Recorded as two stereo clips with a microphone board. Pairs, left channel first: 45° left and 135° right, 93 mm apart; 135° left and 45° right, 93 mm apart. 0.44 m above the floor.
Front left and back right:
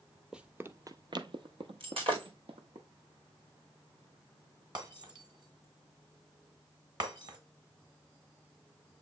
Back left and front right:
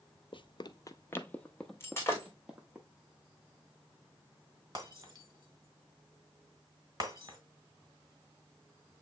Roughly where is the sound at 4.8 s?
Right.